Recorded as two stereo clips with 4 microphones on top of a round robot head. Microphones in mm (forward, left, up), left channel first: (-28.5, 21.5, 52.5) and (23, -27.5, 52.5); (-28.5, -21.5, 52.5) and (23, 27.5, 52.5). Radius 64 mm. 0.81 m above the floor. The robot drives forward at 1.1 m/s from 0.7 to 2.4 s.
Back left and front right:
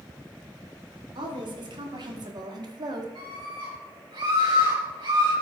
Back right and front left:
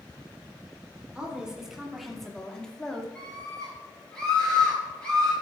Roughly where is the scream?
Ahead right.